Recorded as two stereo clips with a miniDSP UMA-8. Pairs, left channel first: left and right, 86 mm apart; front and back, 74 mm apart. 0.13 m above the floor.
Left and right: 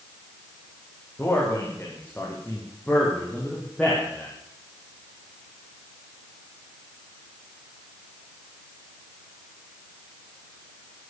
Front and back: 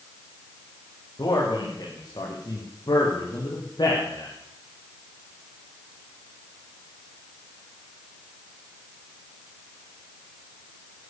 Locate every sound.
1.2 s a man speaking: 20° left, 7.5 m; by 4.3 s 5° left, 6 m